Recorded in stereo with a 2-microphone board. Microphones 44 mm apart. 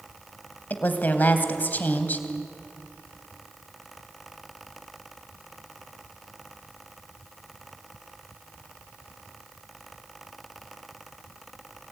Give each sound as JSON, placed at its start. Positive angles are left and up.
{"t": 0.7, "sound": "a woman speaking", "side_deg": 40, "distance_m": 2.5}